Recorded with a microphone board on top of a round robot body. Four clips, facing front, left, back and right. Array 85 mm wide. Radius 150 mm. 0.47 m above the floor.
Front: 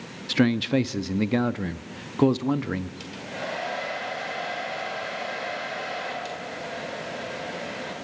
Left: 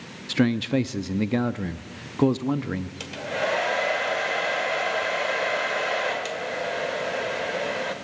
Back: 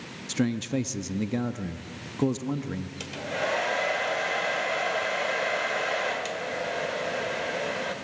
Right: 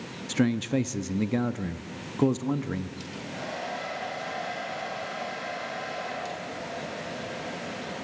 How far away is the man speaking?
About 0.7 m.